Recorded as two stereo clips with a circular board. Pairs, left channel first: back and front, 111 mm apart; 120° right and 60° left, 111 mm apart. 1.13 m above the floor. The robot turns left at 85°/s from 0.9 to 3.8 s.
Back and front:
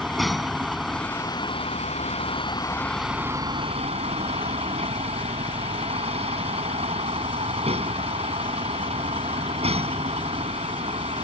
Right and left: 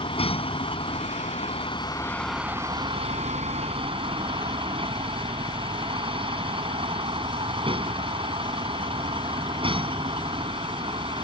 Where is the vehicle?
90° right; by 11.2 s 25° left.